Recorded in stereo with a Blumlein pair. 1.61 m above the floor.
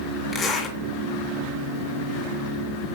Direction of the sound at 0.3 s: 20° left.